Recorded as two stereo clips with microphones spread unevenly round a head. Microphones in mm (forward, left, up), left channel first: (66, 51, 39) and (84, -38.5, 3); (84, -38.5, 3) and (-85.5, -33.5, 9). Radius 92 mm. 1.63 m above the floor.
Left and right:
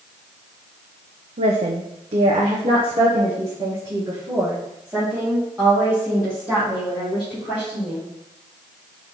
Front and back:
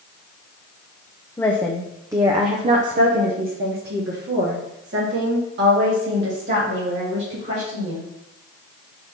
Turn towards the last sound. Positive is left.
turn(degrees=-170)